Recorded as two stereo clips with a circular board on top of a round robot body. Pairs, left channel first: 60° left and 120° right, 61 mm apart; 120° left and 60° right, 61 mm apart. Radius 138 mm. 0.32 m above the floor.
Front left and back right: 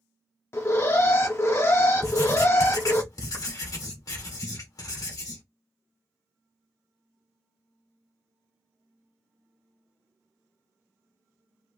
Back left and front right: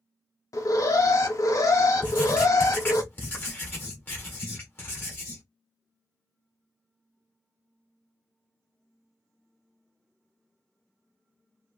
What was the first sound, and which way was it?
An alarm, 100° left.